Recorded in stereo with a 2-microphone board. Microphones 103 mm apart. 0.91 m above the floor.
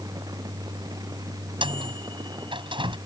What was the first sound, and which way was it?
A microwave, 55° right (ahead or behind).